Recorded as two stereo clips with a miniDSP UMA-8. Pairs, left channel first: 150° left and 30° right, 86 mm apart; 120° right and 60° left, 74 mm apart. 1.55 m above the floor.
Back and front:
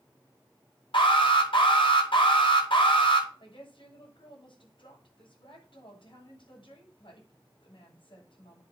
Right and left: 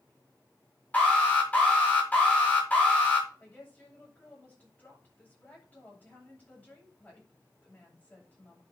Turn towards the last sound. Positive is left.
turn(degrees=170)